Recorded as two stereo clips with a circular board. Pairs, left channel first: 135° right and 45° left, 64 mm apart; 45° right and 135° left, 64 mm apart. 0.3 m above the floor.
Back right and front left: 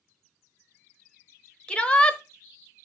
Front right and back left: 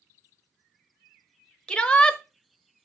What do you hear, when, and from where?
1.7 s a shout: 95° right, 1.1 m